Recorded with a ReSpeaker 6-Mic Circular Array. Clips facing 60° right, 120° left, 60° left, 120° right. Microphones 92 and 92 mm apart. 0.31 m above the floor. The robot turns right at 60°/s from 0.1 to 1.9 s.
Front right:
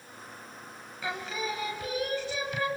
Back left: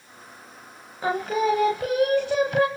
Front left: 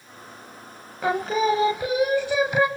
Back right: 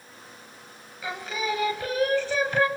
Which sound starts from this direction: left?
Singing, at 1.0 s.